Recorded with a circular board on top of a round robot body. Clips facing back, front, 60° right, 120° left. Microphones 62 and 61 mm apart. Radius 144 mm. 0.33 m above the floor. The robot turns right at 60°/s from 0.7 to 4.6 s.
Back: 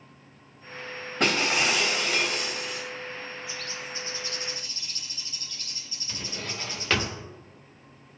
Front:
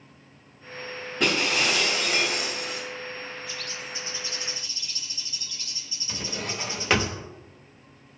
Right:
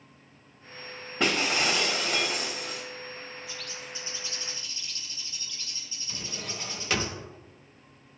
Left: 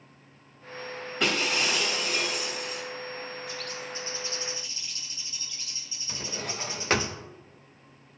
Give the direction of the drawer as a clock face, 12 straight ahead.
9 o'clock.